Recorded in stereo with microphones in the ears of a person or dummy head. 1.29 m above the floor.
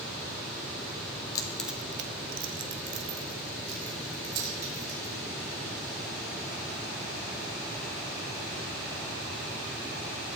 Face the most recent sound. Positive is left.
turn(degrees=-55)  # may be behind; listen again after turning